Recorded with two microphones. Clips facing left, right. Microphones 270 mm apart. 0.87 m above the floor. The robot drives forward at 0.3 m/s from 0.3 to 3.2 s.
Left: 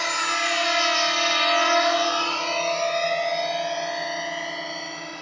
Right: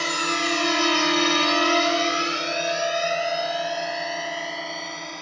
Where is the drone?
40° right (ahead or behind); by 5.2 s 5° left (ahead or behind).